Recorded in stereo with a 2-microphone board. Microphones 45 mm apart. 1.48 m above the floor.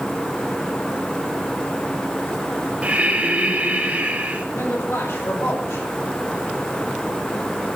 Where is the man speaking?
75° left (ahead or behind), 6.5 m.